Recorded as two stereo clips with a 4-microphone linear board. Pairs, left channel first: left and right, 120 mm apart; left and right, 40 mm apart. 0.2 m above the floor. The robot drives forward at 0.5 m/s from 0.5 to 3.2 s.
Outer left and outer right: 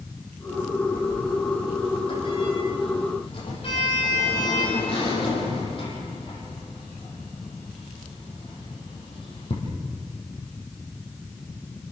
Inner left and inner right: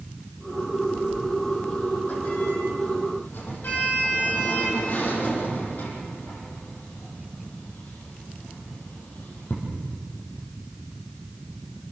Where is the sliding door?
40° left (ahead or behind), 9 m; by 9.5 s 45° left (ahead or behind), 8 m.